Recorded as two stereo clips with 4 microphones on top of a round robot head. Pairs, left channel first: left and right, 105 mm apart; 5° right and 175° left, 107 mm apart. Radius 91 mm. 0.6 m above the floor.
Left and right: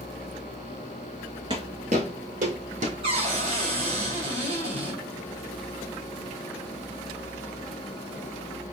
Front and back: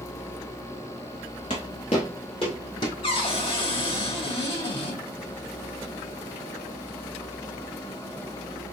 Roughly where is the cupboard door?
Ahead right.